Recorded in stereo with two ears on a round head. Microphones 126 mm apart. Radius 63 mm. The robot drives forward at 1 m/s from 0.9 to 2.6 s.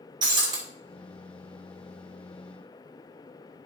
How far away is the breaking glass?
About 2 m.